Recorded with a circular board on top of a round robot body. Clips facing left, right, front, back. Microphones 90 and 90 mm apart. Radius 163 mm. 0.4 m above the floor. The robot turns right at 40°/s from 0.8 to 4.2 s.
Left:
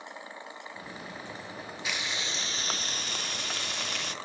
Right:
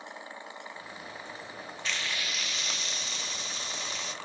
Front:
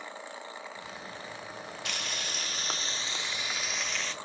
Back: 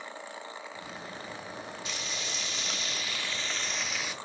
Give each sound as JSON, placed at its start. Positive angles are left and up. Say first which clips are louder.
{"t": 1.9, "sound": "frying", "louder": "even, front 1 dB", "azimuth_deg": 10, "distance_m": 0.6}